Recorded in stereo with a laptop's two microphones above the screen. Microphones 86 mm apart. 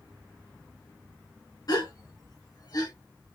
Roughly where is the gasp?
Left.